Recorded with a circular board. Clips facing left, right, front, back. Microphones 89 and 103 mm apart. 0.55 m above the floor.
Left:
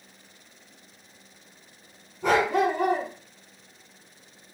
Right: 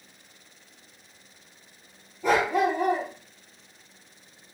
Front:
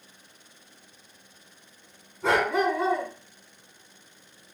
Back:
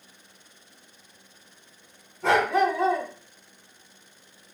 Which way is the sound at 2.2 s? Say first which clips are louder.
Left 1 dB, back 2 dB; 90° left.